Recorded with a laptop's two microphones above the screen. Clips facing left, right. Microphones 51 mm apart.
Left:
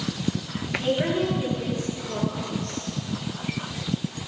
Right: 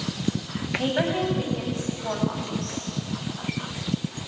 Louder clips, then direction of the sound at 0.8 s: Left 1 dB; 80° right.